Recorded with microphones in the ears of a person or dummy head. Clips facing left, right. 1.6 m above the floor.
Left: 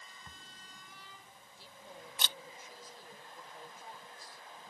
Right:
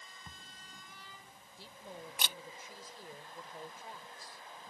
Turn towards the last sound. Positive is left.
turn(degrees=-60)  # may be behind; listen again after turning